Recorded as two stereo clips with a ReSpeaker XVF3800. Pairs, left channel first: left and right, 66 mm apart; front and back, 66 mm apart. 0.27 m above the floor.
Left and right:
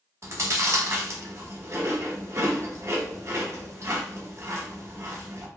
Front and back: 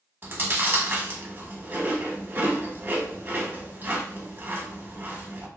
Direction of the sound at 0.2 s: 125° right.